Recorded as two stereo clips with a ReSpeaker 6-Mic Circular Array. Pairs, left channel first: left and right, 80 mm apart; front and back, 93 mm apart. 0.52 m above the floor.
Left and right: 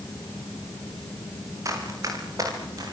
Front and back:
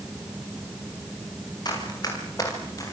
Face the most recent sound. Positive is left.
turn(degrees=-55)